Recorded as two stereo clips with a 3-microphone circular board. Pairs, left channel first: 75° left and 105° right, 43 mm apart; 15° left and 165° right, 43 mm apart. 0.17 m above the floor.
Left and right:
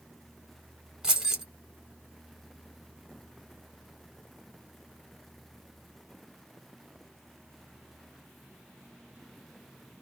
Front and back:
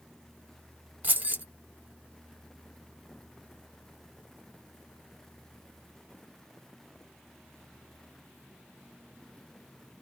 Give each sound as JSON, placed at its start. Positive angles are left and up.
{"t": 1.0, "sound": "keys jangling", "azimuth_deg": -170, "distance_m": 0.8}